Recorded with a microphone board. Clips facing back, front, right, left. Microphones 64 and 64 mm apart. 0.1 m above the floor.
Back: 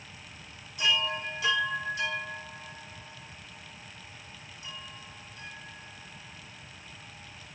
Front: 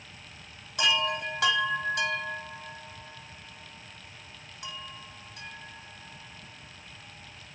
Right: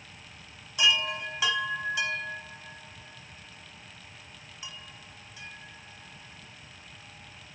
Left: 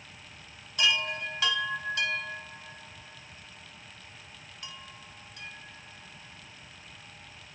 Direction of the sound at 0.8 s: 15° right.